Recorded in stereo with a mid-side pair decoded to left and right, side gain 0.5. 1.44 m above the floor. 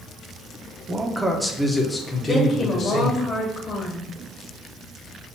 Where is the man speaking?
30° right, 0.8 m; by 3.2 s 45° left, 1.7 m.